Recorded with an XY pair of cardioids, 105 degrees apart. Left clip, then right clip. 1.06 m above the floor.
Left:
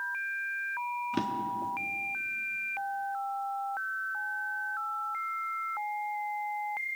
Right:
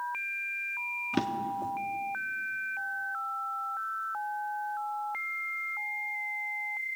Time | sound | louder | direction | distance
1.1 | a drawer | even | 25° right | 1.1 m